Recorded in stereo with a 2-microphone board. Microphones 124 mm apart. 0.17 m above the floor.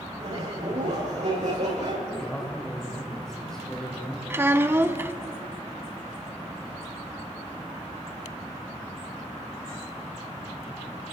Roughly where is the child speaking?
Centre.